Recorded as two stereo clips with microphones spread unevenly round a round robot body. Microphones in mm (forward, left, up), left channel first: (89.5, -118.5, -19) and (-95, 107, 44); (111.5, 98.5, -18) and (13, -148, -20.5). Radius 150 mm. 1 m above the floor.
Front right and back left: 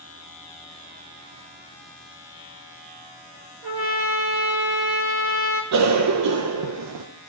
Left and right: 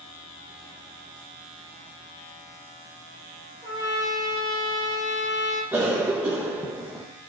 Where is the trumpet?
170° left, 4.5 m.